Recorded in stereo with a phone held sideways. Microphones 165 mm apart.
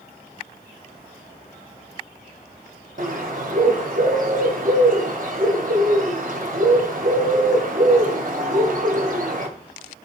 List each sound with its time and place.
3.0 s a bird: 55° right (ahead or behind), 2.5 m